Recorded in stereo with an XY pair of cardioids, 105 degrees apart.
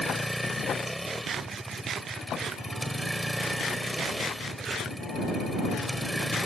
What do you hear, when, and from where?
0.0 s a vehicle: straight ahead